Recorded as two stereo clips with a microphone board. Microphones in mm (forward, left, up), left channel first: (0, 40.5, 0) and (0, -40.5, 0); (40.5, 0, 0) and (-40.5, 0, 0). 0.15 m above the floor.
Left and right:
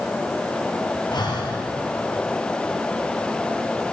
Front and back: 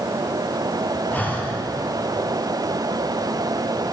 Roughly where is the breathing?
Ahead left.